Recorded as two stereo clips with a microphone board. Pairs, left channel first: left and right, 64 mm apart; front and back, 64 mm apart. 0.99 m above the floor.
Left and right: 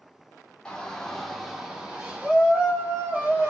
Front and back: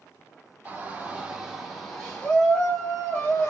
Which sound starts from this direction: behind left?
A shout, at 0.7 s.